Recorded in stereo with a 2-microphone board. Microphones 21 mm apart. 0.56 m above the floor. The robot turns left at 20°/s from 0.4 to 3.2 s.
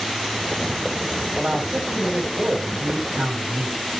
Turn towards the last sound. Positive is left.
turn(degrees=-90)